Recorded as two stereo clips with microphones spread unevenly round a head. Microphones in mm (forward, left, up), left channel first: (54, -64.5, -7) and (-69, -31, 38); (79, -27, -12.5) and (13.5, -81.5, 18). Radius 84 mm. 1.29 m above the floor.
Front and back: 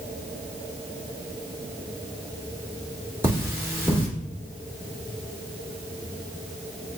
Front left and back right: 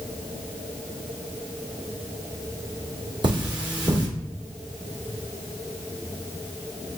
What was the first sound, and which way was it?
Cutlery clinking, 130° right.